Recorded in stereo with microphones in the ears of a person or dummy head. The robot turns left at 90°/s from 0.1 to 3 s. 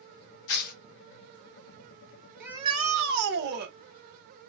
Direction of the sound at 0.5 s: 60° left (ahead or behind).